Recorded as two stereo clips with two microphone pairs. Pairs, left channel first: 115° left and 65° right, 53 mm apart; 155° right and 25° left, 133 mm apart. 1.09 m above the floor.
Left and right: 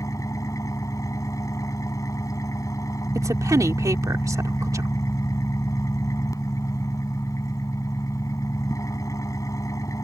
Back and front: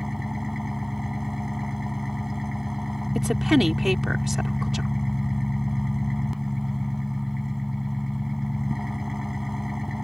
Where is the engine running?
115° left.